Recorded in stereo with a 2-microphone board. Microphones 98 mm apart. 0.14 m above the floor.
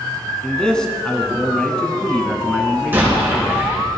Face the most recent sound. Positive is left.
turn(degrees=-20)  # may be behind; listen again after turning